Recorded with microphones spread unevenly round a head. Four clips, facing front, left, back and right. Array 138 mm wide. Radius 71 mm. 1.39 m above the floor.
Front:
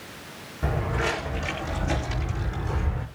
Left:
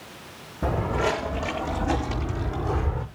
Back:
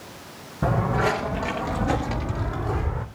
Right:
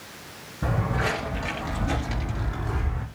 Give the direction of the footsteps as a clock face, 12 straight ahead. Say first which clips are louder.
Left 2 dB, back 5 dB; 6 o'clock.